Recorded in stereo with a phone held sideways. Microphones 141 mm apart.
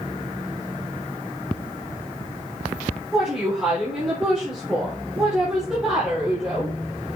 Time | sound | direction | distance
3.1 | a woman speaking | 5° right (ahead or behind) | 4 m